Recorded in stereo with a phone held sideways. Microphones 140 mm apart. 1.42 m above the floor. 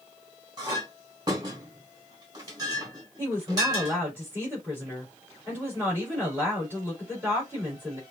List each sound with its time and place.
0.6 s a clink: 30° right (ahead or behind), 3 m
3.2 s a woman speaking: 15° right (ahead or behind), 4.5 m